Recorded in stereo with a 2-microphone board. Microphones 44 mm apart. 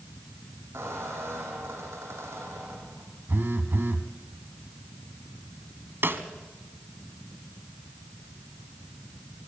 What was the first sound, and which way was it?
A squeak, 85° right.